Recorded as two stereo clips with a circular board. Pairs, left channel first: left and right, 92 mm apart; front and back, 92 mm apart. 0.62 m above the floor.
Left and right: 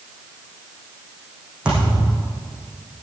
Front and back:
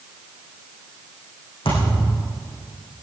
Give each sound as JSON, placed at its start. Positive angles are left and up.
{"t": 1.6, "sound": "a thud", "azimuth_deg": -10, "distance_m": 7.5}